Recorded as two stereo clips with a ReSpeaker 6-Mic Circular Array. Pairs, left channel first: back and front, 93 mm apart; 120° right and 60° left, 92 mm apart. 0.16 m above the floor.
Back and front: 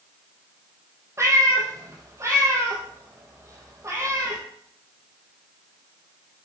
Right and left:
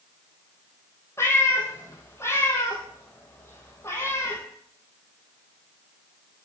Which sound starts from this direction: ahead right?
A cat meowing, at 1.2 s.